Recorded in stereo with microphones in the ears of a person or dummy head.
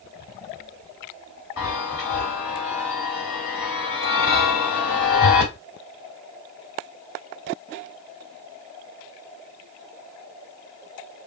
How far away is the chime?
About 1.6 m.